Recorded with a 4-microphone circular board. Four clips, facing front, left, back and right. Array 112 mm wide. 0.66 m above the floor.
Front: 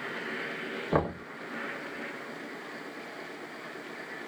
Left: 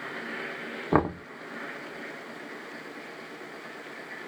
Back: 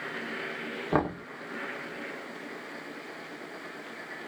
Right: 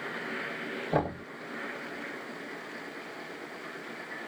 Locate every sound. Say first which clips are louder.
0.9 s knocking: left 5 dB, back 1 dB; 100° left, 1.4 m